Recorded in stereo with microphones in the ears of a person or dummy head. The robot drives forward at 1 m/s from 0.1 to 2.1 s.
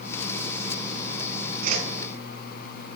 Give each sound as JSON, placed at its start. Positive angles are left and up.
{"t": 1.6, "sound": "a whoosh", "side_deg": -50, "distance_m": 1.0}